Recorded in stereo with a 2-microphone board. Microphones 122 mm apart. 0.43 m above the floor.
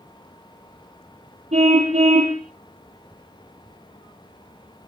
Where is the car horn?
65° right (ahead or behind), 8 m.